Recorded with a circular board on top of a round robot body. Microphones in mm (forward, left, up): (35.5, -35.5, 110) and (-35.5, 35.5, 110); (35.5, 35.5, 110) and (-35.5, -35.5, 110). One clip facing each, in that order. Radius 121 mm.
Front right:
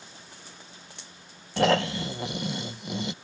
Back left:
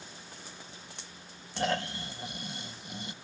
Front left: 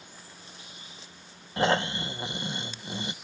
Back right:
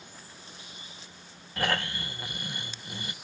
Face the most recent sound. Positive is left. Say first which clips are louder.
# front right 9 dB, front left 5 dB
turn(degrees=-25)